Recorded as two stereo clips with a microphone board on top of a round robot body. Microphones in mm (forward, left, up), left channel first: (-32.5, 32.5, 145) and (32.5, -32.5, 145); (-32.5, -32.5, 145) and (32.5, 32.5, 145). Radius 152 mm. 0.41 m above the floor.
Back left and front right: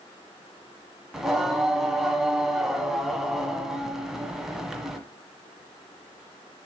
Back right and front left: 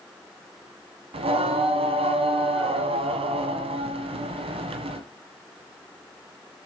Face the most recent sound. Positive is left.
turn(degrees=40)